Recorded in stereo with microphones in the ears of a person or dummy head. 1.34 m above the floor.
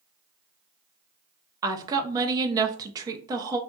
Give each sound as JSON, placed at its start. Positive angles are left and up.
{"t": 1.6, "sound": "a woman speaking", "side_deg": -15, "distance_m": 0.5}